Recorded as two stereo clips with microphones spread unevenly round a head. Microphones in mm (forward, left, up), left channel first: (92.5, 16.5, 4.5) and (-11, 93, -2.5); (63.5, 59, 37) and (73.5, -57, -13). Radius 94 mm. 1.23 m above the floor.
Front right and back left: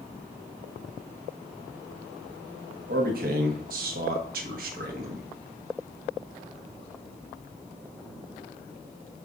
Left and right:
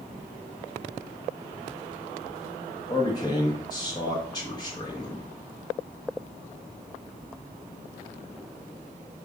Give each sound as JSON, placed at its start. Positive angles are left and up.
{"t": 2.9, "sound": "a man speaking", "azimuth_deg": 170, "distance_m": 1.1}